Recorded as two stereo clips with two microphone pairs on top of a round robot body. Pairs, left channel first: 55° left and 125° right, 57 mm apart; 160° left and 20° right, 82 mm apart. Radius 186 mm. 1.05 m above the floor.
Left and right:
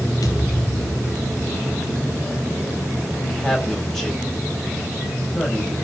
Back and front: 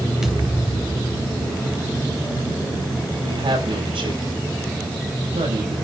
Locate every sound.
0.2 s a thud: 65° left, 0.6 m
3.2 s a woman speaking: 25° right, 7.5 m